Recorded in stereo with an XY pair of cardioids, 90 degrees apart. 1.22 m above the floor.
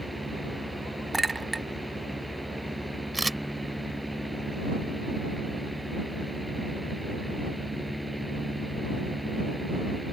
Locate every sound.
0.0 s a fan: 5° right
1.1 s a clink: 20° right
3.1 s a camera shutter: 15° right